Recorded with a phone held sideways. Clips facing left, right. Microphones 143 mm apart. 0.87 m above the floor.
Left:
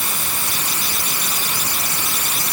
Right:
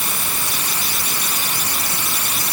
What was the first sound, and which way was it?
Only background noise.